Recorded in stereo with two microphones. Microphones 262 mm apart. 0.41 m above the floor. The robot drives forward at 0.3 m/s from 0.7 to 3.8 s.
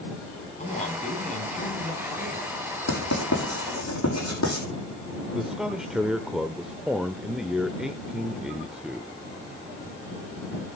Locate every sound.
0.6 s a man speaking: 25° left (ahead or behind), 4 m; by 2.5 s 30° left (ahead or behind), 3.5 m
2.9 s writing: 85° left, 7 m; by 4.7 s 80° left, 7 m
5.3 s a man speaking: centre (ahead or behind), 0.9 m